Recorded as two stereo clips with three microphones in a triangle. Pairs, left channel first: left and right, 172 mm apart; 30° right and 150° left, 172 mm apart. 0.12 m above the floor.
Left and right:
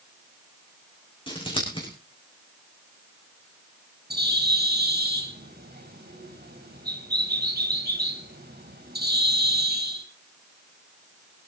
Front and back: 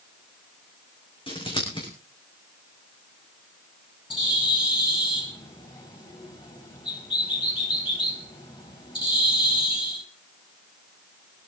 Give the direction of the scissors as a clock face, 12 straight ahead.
11 o'clock.